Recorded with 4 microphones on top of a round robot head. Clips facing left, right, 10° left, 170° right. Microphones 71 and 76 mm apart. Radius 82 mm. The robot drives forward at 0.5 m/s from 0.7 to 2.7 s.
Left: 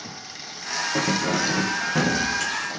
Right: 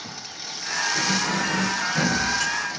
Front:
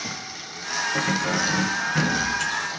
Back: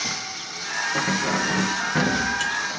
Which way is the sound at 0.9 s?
105° left.